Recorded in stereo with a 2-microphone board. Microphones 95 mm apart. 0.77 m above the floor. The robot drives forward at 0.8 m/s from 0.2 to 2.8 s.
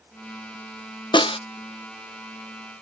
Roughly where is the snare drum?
Left.